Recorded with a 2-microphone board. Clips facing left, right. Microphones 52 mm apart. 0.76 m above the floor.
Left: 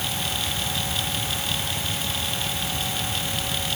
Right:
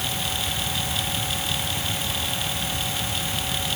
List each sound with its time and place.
Only background noise.